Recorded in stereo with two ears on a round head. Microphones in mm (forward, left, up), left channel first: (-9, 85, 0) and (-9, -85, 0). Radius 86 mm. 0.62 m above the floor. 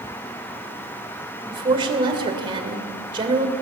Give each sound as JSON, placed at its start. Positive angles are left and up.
{"t": 1.5, "sound": "a woman speaking", "side_deg": -25, "distance_m": 2.5}